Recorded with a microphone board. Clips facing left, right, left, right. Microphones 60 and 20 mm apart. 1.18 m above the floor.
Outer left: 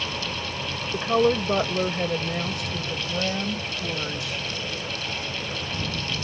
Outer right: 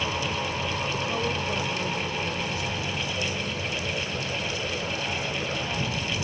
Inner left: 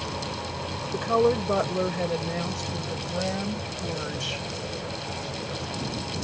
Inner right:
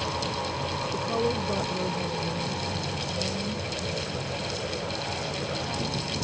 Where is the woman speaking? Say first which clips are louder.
Outer left 7 dB, inner left 7 dB; 40° left (ahead or behind); by 4.4 s 80° left.